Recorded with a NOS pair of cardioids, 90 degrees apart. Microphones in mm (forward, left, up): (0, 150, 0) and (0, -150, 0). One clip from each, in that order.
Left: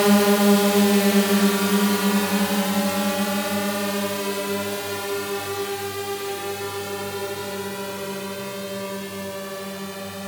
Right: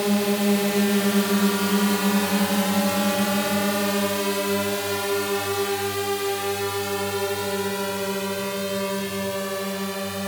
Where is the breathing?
I don't hear breathing.